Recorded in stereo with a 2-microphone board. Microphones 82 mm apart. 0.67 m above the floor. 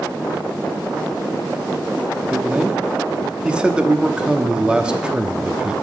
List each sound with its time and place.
2.3 s a man speaking: 10° right (ahead or behind), 1.0 m